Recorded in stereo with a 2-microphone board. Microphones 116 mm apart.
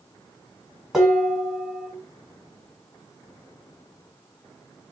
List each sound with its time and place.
0.9 s dishes clattering: 5° right (ahead or behind), 1.6 m